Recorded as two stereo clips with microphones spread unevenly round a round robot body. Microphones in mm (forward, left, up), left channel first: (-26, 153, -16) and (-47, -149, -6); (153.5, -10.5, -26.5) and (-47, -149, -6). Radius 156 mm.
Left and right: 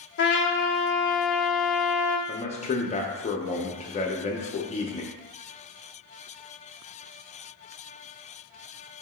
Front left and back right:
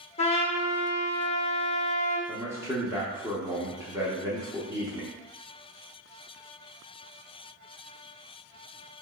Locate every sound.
0.2 s a trumpet: 90° left, 0.6 m
2.3 s a man speaking: 135° left, 0.6 m